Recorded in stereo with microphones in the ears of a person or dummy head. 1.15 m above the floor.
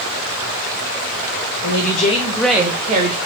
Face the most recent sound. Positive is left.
turn(degrees=-55)  # may be behind; listen again after turning